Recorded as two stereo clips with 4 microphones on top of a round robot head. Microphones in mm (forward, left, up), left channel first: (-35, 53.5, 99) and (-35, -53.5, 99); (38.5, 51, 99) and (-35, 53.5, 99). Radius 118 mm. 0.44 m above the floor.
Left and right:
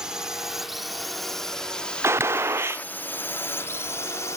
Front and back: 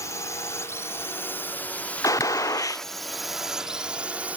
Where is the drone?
10° right; by 4.4 s 125° left.